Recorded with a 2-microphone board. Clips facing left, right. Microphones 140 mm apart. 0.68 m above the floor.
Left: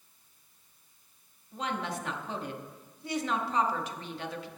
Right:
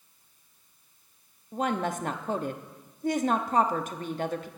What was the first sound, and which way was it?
A woman speaking, 45° right (ahead or behind).